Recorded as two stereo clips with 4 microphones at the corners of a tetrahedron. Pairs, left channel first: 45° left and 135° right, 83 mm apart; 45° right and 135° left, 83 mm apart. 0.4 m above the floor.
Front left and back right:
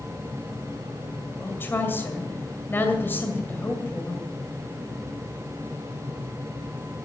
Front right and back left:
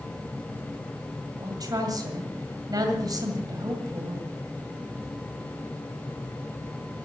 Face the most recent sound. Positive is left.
turn(degrees=105)